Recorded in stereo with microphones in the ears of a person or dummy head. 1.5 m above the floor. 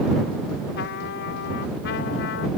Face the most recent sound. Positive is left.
turn(degrees=65)  # may be behind; listen again after turning